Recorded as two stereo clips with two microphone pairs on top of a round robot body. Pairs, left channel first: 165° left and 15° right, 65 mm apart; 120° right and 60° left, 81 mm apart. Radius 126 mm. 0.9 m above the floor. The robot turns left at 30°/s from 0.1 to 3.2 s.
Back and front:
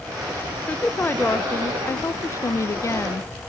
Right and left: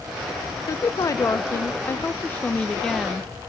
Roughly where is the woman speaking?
Behind right.